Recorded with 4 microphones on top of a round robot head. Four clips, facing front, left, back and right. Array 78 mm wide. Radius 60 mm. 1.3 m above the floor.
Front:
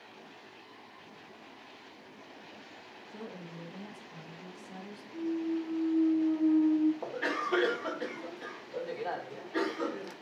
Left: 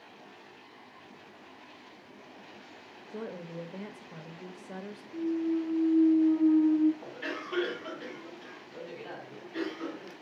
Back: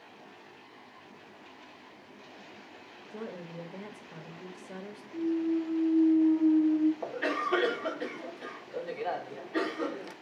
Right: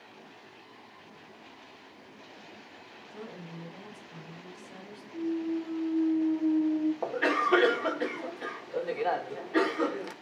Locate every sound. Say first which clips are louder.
3.1 s a woman speaking: left 5 dB, back 4 dB; 115° left, 2.0 m
5.1 s a clunk: left 2 dB, back 4 dB; 105° left, 6 m
7.0 s a cough: right 11 dB, back 2 dB; 85° right, 1.8 m